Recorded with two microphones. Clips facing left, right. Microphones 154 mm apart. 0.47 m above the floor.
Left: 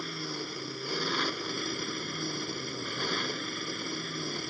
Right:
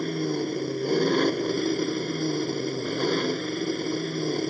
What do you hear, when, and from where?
0.0 s an engine running: 50° right (ahead or behind)